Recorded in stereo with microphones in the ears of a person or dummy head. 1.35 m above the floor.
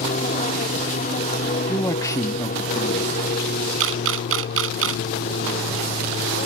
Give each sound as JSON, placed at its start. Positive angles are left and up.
{"t": 0.0, "sound": "an aircraft", "side_deg": 40}
{"t": 1.7, "sound": "a man speaking", "side_deg": 15}
{"t": 3.8, "sound": "a camera shutter", "side_deg": -75}